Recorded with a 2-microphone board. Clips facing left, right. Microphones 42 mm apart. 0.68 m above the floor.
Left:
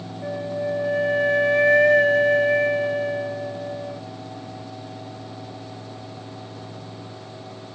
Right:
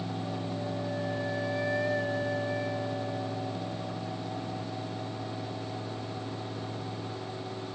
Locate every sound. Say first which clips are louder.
0.2 s a flute: left 8 dB; 65° left (ahead or behind)